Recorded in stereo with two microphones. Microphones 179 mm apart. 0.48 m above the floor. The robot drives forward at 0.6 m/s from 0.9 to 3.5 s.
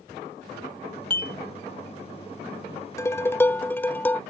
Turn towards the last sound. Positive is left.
turn(degrees=10)  # may be behind; listen again after turning